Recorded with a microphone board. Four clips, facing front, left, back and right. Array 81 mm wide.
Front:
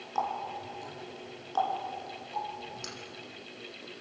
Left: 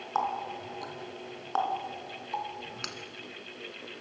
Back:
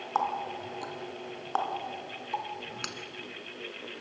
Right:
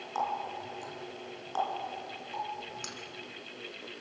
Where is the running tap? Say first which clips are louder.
Left 2 dB, back 2 dB; 150° left, 2 m.